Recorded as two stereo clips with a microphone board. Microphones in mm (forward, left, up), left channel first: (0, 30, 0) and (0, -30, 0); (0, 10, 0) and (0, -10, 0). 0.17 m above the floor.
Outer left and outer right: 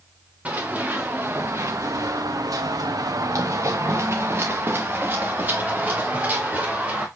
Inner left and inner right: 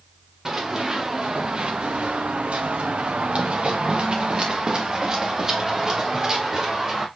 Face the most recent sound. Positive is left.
turn(degrees=-25)  # may be behind; listen again after turning